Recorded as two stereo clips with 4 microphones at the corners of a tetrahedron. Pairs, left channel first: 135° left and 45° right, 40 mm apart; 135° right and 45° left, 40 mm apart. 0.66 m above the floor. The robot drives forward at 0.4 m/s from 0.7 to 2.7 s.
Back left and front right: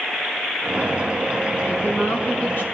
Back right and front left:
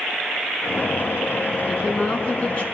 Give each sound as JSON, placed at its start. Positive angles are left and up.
{"t": 1.7, "sound": "a woman speaking", "azimuth_deg": 165, "distance_m": 5.5}